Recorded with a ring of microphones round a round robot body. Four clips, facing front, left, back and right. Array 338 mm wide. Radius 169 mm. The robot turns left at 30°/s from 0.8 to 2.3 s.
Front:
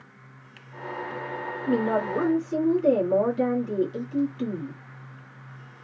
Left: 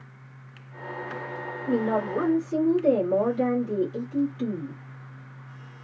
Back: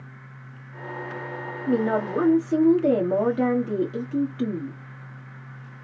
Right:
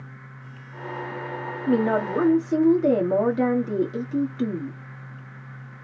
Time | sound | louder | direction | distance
1.7 | a woman speaking | right 3 dB, back 1 dB | 105° right | 1.3 m